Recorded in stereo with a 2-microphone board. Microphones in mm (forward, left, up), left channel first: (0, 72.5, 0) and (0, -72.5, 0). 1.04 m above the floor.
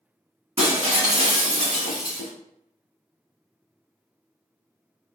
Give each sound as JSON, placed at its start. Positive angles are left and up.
{"t": 0.6, "sound": "breaking glass", "side_deg": -45, "distance_m": 1.2}